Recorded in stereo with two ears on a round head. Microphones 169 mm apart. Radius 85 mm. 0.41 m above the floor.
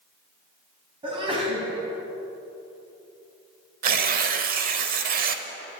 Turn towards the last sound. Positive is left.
turn(degrees=-50)  # may be behind; listen again after turning